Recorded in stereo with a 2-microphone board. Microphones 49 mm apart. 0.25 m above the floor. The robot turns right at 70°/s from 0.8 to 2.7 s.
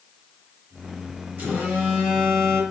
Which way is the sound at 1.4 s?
65° right.